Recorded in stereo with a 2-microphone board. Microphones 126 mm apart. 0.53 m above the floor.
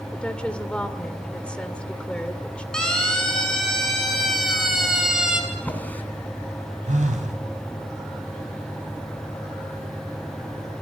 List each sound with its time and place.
0.1 s a woman speaking: 10° left (ahead or behind), 1.9 m
2.7 s a siren: 5° left (ahead or behind), 8.5 m; by 5.4 s 5° right (ahead or behind), 5 m
5.5 s a drawer: 15° left (ahead or behind), 3 m
6.9 s a phone buzzing: 70° right (ahead or behind), 4 m